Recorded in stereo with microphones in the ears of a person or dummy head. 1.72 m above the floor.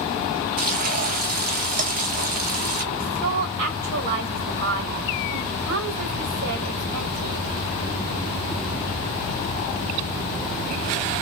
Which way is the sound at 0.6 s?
45° right (ahead or behind).